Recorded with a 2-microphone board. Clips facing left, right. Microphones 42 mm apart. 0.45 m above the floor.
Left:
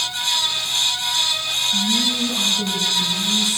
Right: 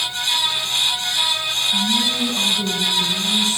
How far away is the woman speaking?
About 5 m.